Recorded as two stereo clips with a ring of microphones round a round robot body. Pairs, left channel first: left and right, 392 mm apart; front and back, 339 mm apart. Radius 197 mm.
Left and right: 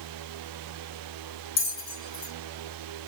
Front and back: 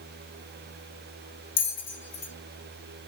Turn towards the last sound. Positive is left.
turn(degrees=40)